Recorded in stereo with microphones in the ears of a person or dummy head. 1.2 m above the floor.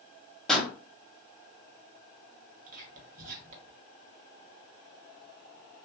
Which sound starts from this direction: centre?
A pop, at 0.5 s.